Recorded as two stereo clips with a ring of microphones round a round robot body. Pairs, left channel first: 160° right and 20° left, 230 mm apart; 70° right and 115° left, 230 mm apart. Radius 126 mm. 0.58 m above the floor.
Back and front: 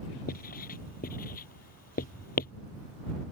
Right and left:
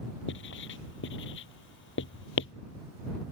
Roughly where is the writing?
Right.